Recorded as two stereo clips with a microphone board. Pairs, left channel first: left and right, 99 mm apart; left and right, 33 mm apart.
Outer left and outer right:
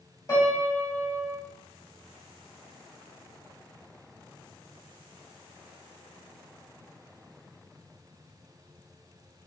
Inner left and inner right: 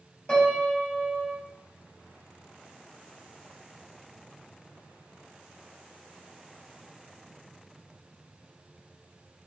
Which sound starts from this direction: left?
A piano, at 0.3 s.